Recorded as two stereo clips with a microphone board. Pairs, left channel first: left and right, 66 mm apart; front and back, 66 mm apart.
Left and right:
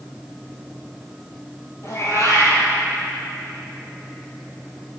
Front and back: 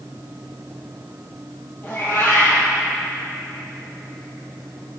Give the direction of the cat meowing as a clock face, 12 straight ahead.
10 o'clock.